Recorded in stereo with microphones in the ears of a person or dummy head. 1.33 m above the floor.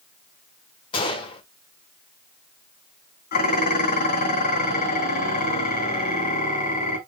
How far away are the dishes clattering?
About 2 m.